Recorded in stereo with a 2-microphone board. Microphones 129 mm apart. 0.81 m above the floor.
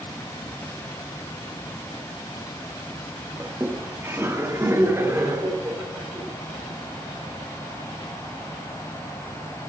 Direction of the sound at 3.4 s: 20° right (ahead or behind).